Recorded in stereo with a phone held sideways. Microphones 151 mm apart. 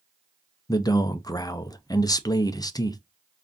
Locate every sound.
0.7 s a man speaking: 25° left (ahead or behind), 0.5 m